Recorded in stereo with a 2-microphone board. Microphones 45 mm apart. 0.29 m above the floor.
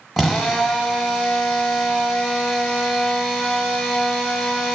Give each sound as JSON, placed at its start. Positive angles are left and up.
{"t": 0.2, "sound": "a drill", "side_deg": -5, "distance_m": 1.1}